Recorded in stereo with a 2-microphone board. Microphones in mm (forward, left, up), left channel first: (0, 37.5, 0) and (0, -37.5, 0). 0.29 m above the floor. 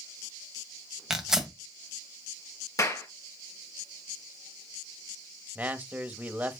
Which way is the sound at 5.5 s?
20° right (ahead or behind).